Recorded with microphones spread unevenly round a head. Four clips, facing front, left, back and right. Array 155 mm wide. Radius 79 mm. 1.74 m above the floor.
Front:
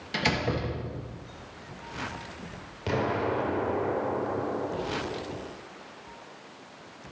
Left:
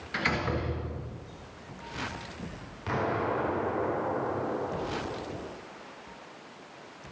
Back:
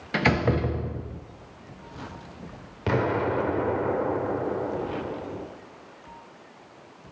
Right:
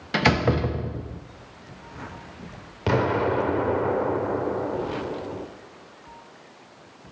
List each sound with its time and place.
0.1 s a door slam: 125° right, 1.3 m
2.9 s an explosion: 120° right, 2 m